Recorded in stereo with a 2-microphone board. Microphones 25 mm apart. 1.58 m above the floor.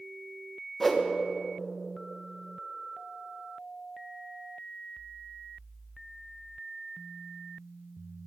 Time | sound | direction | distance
0.8 | a whoosh | 5° left (ahead or behind) | 1.3 m